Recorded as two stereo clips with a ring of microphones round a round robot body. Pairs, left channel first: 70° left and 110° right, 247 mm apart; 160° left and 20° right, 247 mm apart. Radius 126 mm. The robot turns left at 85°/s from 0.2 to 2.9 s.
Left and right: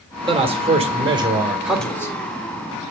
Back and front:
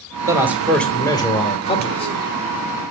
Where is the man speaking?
75° right, 1.5 m; by 2.1 s 125° left, 1.5 m.